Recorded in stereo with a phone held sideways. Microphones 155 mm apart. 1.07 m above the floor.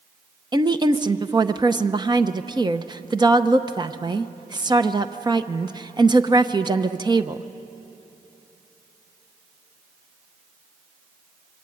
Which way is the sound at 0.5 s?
25° right (ahead or behind).